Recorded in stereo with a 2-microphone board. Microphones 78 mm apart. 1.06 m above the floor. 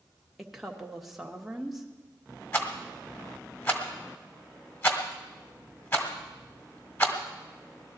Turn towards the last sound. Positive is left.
turn(degrees=30)  # may be behind; listen again after turning